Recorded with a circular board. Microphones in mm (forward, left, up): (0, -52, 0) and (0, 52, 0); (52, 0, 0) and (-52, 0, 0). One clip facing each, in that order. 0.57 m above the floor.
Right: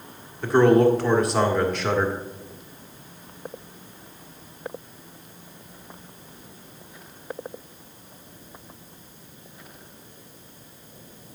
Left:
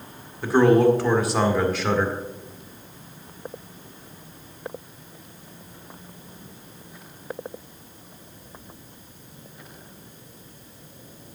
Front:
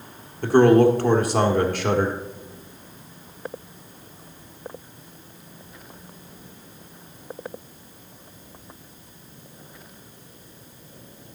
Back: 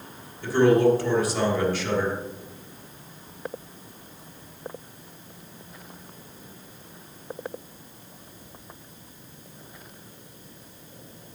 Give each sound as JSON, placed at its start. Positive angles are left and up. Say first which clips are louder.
{"t": 0.4, "sound": "a man speaking", "louder": "even, front 4 dB", "azimuth_deg": 0, "distance_m": 1.6}